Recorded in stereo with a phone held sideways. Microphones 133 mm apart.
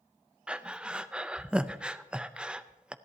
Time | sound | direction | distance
0.5 | breathing | 10° right (ahead or behind) | 0.5 m